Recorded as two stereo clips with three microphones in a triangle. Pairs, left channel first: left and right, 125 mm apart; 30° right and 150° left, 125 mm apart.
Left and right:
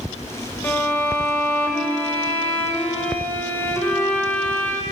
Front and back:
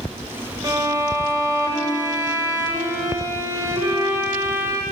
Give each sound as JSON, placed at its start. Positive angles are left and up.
{"t": 0.6, "sound": "a violin", "azimuth_deg": 140, "distance_m": 0.6}